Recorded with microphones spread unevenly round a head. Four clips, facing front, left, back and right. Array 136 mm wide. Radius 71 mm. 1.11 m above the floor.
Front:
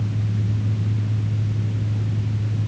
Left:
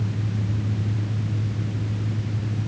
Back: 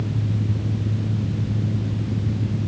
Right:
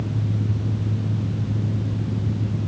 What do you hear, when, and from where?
Only background noise.